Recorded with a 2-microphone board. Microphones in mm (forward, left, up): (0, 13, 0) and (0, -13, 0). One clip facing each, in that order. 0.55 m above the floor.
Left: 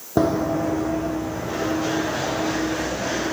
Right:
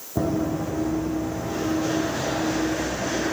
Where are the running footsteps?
60° left (ahead or behind), 1.0 m; by 3.3 s 45° left (ahead or behind), 5.5 m.